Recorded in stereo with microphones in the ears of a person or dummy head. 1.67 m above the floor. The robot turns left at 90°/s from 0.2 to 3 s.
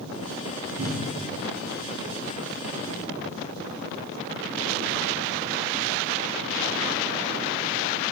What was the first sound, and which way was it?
A cupboard door, 40° right (ahead or behind).